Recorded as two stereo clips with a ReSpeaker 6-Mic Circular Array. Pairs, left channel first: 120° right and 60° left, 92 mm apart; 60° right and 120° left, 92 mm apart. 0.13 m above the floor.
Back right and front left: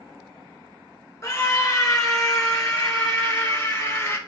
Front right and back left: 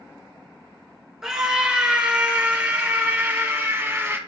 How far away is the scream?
About 2 m.